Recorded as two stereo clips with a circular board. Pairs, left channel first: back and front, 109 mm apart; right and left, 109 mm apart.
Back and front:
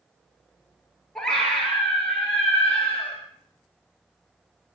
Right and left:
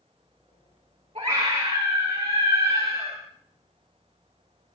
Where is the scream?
95° left, 4 m; by 3.2 s 115° left, 3 m.